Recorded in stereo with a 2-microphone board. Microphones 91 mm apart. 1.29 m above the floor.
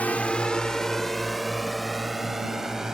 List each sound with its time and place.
0.0 s a drone: 15° left (ahead or behind); by 3.0 s 5° right (ahead or behind)